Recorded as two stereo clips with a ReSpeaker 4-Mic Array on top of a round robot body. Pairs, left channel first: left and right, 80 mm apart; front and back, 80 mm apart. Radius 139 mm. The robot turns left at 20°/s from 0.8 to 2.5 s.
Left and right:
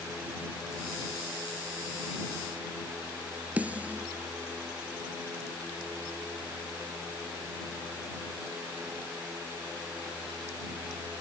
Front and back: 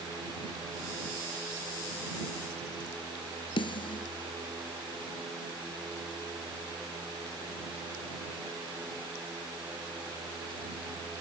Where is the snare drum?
15° right.